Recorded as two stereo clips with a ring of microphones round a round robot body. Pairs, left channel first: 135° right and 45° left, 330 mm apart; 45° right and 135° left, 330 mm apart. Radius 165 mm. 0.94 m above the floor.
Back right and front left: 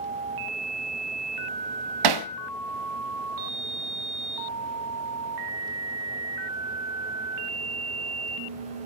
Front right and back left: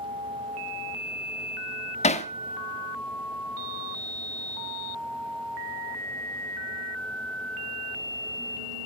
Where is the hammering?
25° left, 0.8 m.